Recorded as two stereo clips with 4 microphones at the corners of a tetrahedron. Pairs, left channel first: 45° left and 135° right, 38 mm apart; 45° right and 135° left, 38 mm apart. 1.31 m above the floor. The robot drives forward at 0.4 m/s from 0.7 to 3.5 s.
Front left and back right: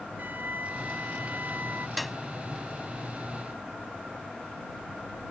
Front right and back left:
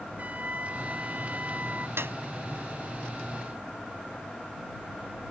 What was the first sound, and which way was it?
A flute, 175° right.